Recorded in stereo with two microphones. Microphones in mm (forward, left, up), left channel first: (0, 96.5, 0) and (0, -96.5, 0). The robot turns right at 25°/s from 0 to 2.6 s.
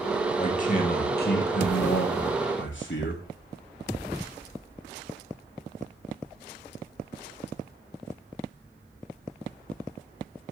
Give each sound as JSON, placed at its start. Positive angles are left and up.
{"t": 0.4, "sound": "a man speaking", "azimuth_deg": 35, "distance_m": 2.5}